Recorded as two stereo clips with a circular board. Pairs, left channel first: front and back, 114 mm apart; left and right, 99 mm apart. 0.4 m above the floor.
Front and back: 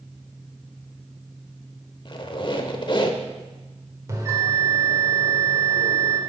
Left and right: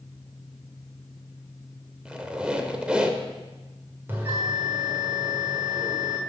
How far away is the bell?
About 1.5 m.